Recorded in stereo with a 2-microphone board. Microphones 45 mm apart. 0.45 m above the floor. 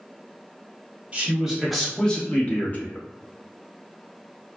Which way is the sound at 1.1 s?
25° right (ahead or behind).